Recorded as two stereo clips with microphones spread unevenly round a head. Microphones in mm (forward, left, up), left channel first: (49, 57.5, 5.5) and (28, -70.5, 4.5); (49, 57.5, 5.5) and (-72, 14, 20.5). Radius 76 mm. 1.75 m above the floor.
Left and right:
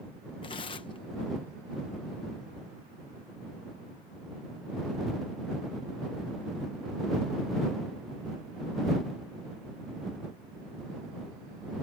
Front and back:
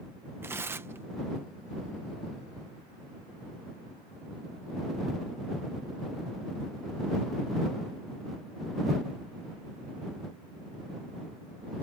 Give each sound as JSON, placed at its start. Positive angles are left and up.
{"t": 0.4, "sound": "tearing paper", "azimuth_deg": 135}